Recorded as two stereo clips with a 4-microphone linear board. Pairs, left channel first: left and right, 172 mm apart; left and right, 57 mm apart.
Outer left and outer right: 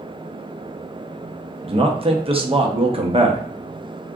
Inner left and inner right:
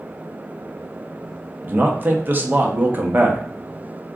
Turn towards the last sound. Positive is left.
turn(degrees=-35)  # may be behind; listen again after turning